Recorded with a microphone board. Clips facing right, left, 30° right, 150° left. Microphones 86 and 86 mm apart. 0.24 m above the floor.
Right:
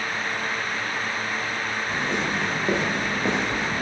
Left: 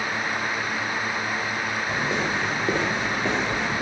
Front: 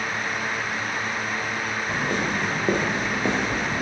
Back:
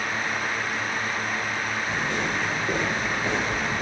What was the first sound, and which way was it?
Footsteps, 15° left.